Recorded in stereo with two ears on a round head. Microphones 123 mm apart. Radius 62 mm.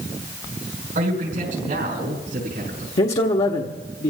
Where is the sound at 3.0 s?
45° left (ahead or behind), 1.1 m.